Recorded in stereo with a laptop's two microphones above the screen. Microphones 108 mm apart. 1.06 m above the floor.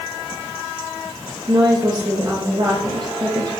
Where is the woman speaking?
40° right (ahead or behind), 1.0 m.